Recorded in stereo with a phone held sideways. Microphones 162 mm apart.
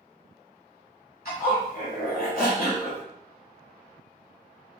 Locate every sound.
1.2 s a zipper: 65° left (ahead or behind), 1.8 m